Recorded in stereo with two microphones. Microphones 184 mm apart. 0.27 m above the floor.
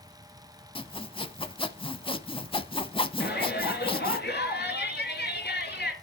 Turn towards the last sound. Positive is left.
turn(degrees=65)  # may be behind; listen again after turning